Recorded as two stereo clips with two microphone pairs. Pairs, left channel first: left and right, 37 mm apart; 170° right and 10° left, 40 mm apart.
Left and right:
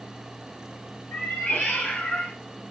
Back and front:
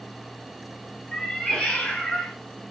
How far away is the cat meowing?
About 1.2 m.